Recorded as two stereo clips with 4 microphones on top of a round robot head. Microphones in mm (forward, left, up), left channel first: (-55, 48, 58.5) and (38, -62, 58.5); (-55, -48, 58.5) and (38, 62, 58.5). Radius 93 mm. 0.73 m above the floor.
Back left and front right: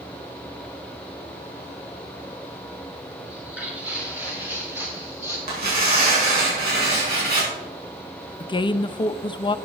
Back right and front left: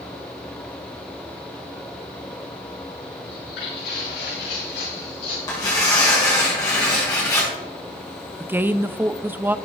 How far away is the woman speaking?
About 0.6 m.